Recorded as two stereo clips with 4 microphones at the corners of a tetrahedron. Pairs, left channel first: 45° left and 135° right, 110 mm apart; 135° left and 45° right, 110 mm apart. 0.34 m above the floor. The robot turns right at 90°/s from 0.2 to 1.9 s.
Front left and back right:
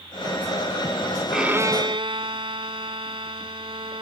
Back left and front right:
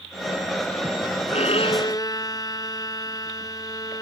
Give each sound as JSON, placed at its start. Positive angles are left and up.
{"t": 1.3, "sound": "a violin", "azimuth_deg": 135}